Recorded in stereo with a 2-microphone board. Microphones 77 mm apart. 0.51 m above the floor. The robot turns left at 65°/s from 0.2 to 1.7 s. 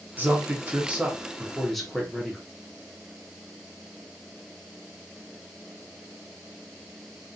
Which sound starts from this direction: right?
A man speaking, at 0.2 s.